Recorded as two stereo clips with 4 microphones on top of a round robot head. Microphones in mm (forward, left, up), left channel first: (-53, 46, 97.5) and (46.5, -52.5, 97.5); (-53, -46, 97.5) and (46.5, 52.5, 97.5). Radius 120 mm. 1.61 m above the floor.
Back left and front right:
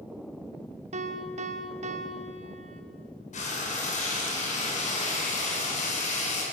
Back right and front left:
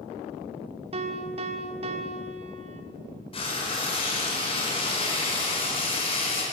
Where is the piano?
5° right, 1.6 m.